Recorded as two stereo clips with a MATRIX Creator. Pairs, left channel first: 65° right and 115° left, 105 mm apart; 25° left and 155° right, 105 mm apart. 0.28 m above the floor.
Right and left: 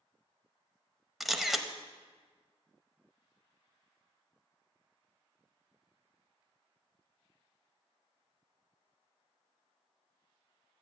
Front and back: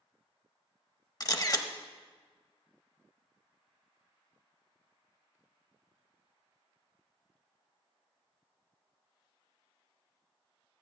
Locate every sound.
1.2 s a camera shutter: 25° left, 0.6 m